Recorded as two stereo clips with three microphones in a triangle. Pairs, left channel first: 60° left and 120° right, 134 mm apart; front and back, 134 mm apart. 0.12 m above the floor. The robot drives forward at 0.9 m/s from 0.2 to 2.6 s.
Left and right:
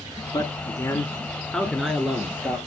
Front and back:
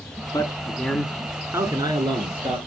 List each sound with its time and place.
0.3 s a man speaking: 35° left, 1.4 m; by 2.6 s 165° left, 1.9 m